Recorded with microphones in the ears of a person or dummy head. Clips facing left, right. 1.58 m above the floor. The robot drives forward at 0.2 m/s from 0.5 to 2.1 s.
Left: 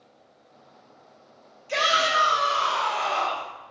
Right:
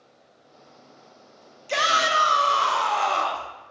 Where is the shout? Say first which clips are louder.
Even; 70° right (ahead or behind), 0.7 m; by 3.5 s 65° right (ahead or behind), 0.8 m.